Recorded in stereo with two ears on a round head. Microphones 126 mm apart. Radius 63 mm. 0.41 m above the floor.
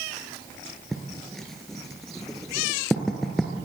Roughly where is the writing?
Centre.